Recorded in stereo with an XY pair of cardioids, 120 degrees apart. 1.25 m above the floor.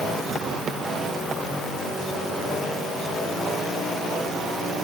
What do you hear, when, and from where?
Only background noise.